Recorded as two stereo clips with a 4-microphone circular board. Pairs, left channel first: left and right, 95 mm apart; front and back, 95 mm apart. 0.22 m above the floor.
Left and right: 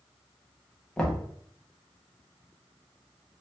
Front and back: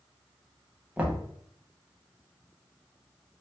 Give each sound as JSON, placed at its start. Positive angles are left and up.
{"t": 1.0, "sound": "knocking", "azimuth_deg": 145, "distance_m": 0.7}